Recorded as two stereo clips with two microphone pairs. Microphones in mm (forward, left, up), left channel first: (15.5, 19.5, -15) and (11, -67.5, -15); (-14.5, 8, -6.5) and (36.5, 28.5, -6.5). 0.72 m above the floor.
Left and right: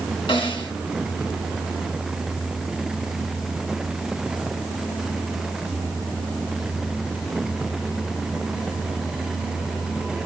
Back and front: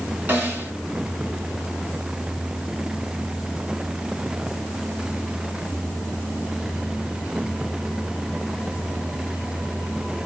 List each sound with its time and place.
0.3 s a snare drum: 75° left, 2.5 m